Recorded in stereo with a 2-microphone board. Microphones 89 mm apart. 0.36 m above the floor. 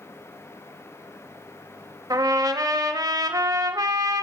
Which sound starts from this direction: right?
A trumpet, at 2.1 s.